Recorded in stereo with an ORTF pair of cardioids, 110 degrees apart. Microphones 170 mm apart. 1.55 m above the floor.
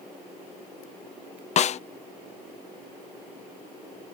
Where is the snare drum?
45° left.